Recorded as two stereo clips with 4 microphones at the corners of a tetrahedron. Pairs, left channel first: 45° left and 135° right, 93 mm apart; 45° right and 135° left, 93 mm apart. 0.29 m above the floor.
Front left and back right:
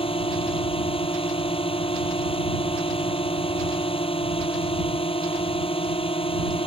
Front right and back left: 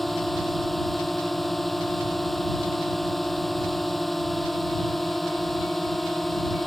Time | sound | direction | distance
0.0 | a drone | 45° left | ?